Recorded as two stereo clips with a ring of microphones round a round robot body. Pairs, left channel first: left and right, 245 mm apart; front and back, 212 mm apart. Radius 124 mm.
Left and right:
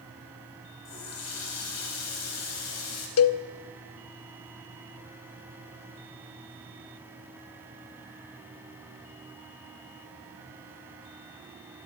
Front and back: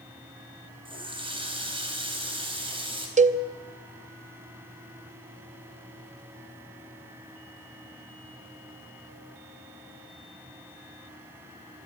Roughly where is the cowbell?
Behind left.